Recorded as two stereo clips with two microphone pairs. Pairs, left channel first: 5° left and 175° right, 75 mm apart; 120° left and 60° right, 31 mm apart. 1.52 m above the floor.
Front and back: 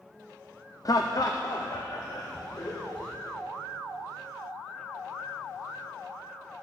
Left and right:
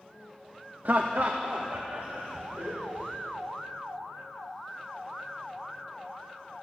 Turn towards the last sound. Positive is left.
turn(degrees=-25)